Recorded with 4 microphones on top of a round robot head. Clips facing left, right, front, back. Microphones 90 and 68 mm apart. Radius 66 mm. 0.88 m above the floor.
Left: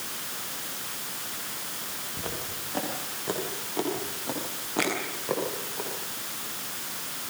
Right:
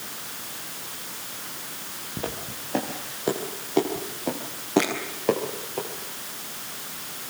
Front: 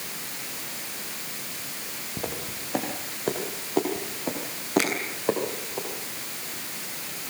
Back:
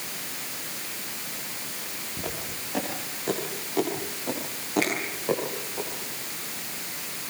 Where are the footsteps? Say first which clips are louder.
Right 5 dB, front 2 dB; 60° right, 8 m; by 5.8 s 65° right, 11 m.